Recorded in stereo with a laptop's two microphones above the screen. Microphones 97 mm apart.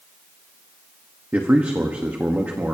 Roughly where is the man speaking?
Centre.